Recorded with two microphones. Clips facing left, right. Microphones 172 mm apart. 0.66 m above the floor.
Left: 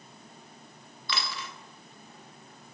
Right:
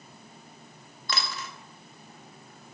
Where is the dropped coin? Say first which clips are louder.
Right 1 dB; 45° right (ahead or behind), 0.6 m.